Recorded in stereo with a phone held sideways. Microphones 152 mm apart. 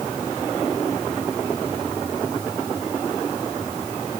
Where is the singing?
No singing in this recording.